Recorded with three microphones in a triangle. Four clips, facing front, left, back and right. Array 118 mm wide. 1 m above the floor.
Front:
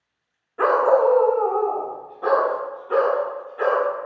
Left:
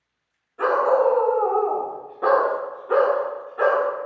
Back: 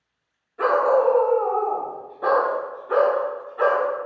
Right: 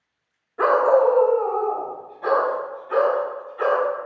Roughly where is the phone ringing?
I don't hear a phone ringing.